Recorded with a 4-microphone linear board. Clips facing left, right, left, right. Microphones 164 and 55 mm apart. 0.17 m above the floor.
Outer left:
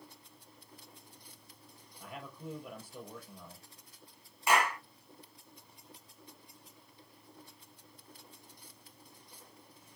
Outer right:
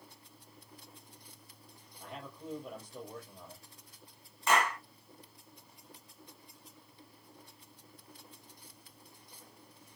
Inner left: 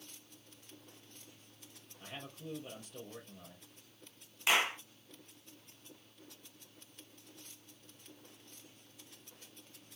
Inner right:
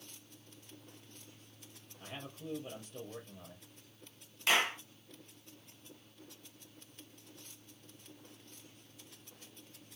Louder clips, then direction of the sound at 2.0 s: Even, inner right 1 dB; centre (ahead or behind).